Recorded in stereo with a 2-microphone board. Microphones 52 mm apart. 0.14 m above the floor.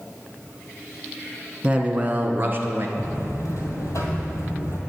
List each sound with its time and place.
1.6 s a man speaking: 20° right (ahead or behind), 1.1 m; by 2.9 s 45° right (ahead or behind), 1.4 m
3.0 s a buzzer: 70° left (ahead or behind), 2 m